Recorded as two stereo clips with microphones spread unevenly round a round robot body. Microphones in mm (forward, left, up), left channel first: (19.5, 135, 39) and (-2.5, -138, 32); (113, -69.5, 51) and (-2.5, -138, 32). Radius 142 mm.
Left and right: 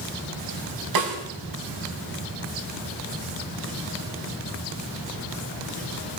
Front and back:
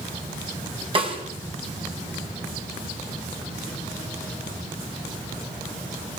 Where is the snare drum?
100° right, 6 m.